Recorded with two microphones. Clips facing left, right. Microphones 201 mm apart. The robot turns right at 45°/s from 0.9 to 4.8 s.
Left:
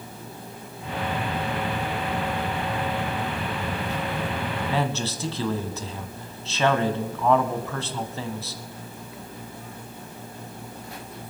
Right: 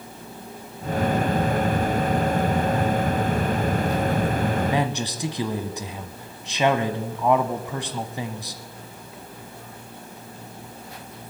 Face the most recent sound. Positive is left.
turn(degrees=-15)  # may be behind; listen again after turning